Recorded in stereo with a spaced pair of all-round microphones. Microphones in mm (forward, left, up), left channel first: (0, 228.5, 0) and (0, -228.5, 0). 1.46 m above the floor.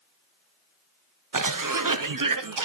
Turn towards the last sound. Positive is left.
turn(degrees=-45)  # may be behind; listen again after turning